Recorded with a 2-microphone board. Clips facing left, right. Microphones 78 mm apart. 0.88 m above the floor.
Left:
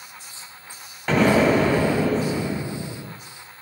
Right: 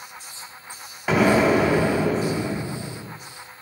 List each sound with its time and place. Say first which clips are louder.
1.1 s an explosion: even; 5° right (ahead or behind), 0.8 m